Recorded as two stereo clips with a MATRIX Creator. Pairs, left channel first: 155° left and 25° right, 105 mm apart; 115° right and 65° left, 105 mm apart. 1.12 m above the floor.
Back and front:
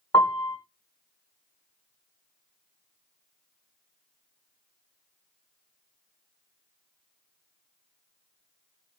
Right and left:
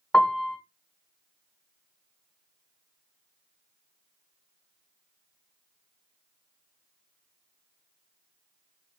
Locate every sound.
0.1 s a piano: 170° left, 1.0 m